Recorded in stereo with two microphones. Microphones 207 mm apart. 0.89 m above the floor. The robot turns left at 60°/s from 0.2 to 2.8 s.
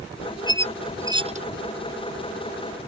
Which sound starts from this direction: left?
A squeak, at 0.5 s.